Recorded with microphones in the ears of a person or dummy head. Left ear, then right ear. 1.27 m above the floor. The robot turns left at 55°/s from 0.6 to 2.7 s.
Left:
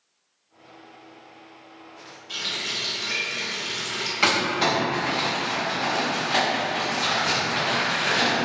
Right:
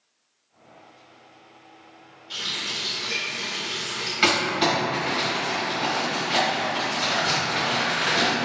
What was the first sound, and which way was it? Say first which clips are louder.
A running tap: even; 50° left (ahead or behind).